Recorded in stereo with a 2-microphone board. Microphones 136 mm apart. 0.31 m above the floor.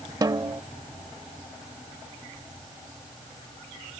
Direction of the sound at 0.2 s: 30° right (ahead or behind).